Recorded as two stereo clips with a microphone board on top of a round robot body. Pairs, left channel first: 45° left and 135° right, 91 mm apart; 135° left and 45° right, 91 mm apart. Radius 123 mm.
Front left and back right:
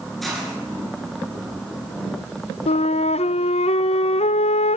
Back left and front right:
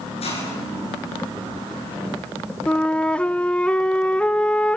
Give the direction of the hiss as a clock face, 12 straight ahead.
8 o'clock.